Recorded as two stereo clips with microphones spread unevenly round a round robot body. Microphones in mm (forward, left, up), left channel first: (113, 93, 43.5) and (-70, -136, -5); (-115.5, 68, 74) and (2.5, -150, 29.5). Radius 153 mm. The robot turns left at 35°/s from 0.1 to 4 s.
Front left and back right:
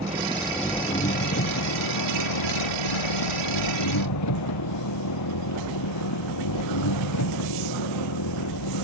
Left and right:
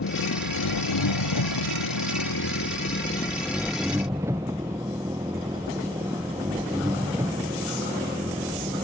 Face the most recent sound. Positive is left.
turn(degrees=20)